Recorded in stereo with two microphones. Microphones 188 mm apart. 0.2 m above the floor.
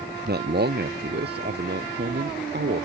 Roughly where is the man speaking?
Right.